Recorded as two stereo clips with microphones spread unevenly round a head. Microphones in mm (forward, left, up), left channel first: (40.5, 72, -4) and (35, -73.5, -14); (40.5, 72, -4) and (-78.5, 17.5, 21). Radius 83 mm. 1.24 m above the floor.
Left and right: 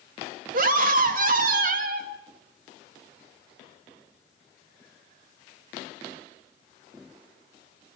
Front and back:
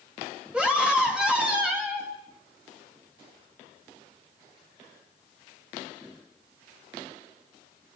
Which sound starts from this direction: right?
A scream, at 0.5 s.